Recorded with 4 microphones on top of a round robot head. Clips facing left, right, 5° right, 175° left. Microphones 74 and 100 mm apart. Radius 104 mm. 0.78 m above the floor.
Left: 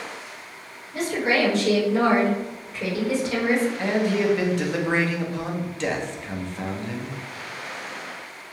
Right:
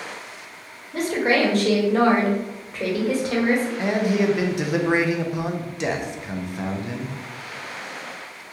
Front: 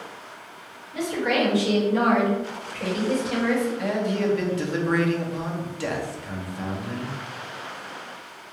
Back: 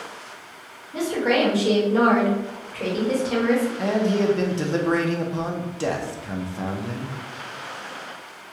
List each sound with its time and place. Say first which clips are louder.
0.9 s a woman speaking: right 2 dB, back 3 dB; 125° right, 1.1 m
3.8 s a man speaking: right 1 dB, back 3 dB; 160° right, 0.6 m